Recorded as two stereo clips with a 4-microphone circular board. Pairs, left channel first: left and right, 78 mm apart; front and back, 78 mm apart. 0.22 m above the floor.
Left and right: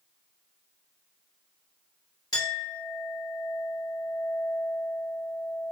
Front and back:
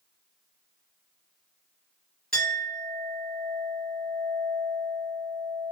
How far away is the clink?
About 2 m.